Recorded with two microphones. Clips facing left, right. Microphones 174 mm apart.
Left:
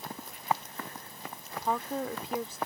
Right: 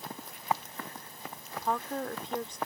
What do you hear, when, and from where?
1.6 s a woman speaking: 5° left (ahead or behind)